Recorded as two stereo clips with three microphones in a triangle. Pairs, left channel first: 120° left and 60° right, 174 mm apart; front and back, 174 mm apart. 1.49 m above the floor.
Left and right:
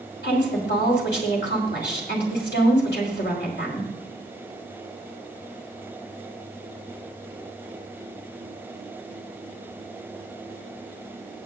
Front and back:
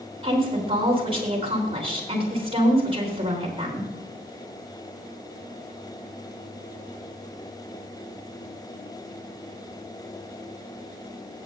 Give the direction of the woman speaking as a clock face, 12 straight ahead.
8 o'clock.